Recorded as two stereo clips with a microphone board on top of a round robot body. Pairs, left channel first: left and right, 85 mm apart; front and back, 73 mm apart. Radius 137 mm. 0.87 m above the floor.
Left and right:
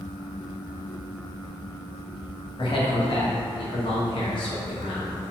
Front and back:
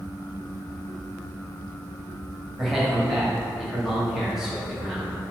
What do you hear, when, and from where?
2.6 s a man speaking: 95° left, 2.5 m